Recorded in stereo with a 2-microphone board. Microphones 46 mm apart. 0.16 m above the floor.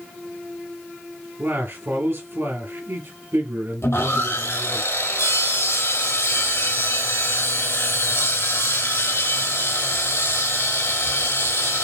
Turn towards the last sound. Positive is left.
turn(degrees=80)